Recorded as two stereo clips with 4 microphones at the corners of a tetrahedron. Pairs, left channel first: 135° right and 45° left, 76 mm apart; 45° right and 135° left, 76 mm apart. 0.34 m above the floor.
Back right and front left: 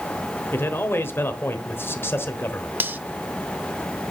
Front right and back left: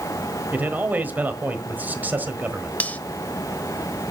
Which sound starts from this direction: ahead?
Cutlery clinking, at 2.8 s.